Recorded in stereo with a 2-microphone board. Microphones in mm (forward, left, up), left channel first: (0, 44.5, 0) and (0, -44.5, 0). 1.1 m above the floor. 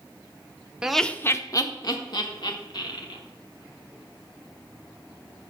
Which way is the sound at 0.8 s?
10° right (ahead or behind).